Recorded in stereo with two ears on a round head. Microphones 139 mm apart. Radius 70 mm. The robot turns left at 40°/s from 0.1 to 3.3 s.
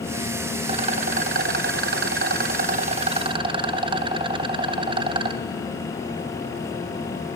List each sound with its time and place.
0.6 s a rattle: 35° right, 1.1 m; by 5.4 s 145° right, 1.1 m